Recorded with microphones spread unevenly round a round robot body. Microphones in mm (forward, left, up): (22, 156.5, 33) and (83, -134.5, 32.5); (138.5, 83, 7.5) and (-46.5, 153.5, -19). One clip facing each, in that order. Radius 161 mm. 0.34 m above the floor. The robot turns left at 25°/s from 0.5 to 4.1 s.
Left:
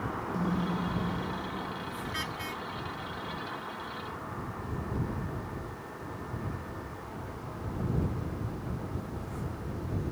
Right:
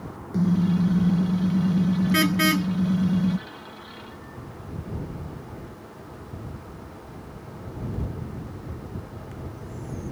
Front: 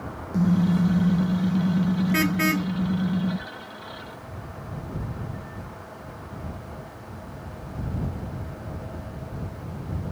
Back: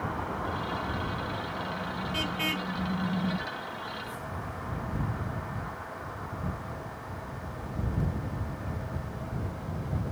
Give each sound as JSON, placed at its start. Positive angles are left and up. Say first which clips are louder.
{"t": 0.3, "sound": "a car horn", "louder": "right 11 dB, front 13 dB", "azimuth_deg": -25}